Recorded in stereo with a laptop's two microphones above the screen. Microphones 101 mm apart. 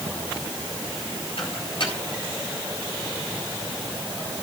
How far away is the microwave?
About 5 m.